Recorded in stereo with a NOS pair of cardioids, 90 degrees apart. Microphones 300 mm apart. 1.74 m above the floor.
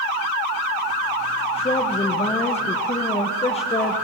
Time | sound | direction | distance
1.6 | a woman speaking | 20° left | 1.5 m